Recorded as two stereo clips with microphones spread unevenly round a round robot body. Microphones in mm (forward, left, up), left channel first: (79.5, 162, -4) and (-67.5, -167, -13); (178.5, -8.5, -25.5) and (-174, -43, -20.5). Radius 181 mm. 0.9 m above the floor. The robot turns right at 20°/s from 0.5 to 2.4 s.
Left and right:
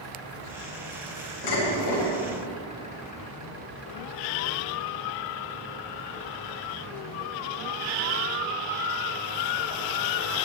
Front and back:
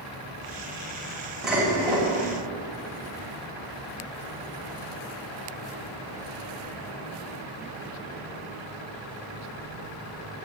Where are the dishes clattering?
95° left, 3.5 m; by 2.1 s 110° left, 3.5 m.